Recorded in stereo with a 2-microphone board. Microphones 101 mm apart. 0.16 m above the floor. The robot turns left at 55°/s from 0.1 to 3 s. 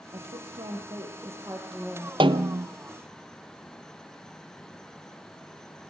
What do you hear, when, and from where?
0.1 s a woman speaking: 85° right, 4 m; by 2.1 s 170° left, 4 m
2.2 s a snare drum: 60° right (ahead or behind), 0.7 m; by 2.7 s 85° right, 0.7 m